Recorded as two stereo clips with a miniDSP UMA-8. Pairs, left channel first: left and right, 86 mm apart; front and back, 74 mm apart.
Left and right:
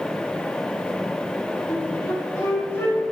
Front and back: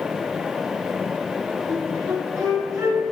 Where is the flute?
145° left, 1.9 m.